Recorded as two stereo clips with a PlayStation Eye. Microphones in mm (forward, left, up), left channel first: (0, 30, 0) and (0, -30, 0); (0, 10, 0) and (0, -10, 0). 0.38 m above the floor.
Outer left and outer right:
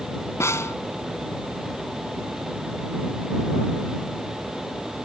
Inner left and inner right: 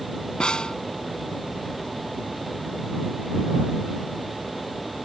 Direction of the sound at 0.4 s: 50° left (ahead or behind).